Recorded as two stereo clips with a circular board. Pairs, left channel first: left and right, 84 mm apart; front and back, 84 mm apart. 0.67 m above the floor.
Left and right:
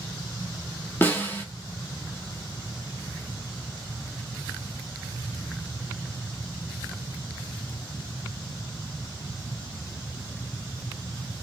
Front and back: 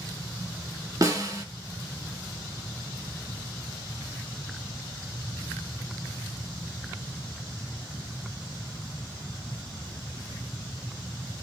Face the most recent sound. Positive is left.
turn(degrees=150)